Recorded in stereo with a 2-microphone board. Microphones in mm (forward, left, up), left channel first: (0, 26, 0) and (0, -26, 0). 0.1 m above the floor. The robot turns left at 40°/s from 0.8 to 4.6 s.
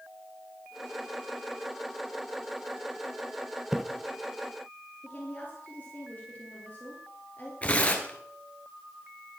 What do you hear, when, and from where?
3.7 s a splash: 10° right (ahead or behind), 0.8 m; by 3.8 s 5° right (ahead or behind), 0.8 m
5.0 s a woman speaking: 30° left (ahead or behind), 2.5 m
7.6 s tearing paper: 25° left (ahead or behind), 1.7 m